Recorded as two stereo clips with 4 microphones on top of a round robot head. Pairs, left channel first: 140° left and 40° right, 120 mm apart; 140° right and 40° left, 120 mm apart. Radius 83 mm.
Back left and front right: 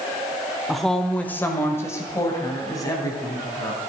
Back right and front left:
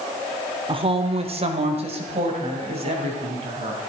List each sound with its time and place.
0.7 s a woman speaking: 45° left, 1.3 m; by 3.8 s 80° left, 4.5 m